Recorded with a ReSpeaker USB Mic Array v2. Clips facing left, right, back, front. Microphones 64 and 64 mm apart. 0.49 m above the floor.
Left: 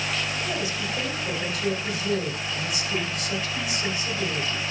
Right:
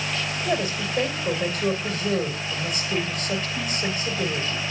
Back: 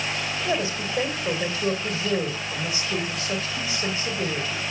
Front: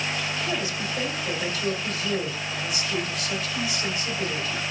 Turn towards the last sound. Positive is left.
turn(degrees=-125)